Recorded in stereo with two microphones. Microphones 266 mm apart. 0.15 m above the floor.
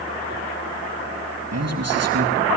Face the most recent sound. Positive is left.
turn(degrees=-70)  # may be behind; listen again after turning